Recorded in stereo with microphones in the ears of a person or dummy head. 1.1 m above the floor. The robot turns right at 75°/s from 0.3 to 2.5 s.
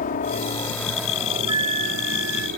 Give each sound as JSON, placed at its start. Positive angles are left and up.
{"t": 0.0, "sound": "a helicopter", "azimuth_deg": 135}
{"t": 1.5, "sound": "a flute", "azimuth_deg": -155}